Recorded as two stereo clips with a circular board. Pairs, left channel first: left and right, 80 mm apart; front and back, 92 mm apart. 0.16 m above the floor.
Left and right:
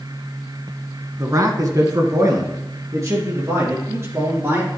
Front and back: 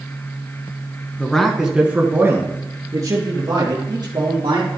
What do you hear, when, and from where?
1.2 s a man speaking: 70° right, 1.4 m; by 4.7 s 145° right, 4 m